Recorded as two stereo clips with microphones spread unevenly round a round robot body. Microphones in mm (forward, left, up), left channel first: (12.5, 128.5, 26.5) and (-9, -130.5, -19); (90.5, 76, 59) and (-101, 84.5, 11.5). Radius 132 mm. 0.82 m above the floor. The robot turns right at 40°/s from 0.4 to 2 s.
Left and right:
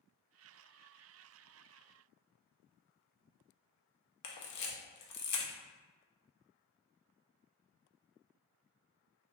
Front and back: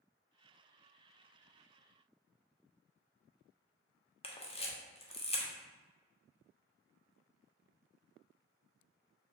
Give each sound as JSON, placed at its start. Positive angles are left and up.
{"t": 4.2, "sound": "a camera shutter", "azimuth_deg": 65, "distance_m": 0.7}